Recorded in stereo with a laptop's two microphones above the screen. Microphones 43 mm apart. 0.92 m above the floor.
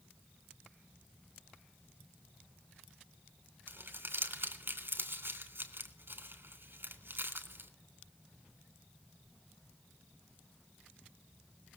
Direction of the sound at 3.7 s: 55° right (ahead or behind).